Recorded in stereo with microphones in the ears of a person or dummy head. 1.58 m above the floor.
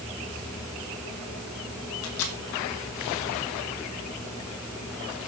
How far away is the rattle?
I don't hear a rattle.